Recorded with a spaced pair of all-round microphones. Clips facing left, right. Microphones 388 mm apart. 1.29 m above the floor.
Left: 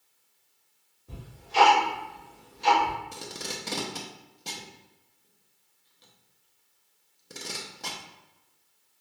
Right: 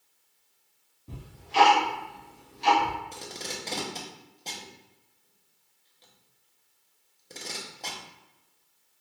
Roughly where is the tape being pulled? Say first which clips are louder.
Left 1 dB; left.